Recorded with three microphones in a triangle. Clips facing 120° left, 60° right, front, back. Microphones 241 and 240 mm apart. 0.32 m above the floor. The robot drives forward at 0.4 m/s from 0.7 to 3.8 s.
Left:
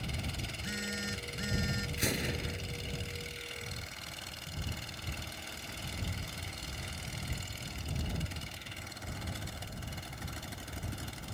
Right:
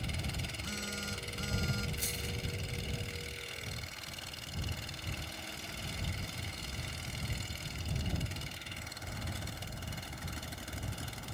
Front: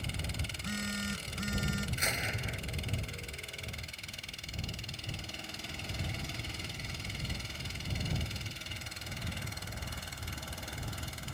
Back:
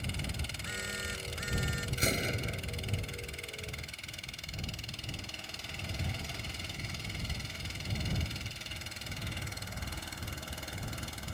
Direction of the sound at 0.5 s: 40° left.